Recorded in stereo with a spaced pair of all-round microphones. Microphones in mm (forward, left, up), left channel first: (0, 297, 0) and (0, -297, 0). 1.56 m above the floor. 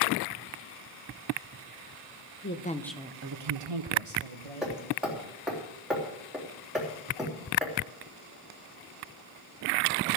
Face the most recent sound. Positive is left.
turn(degrees=0)  # may be behind; listen again after turning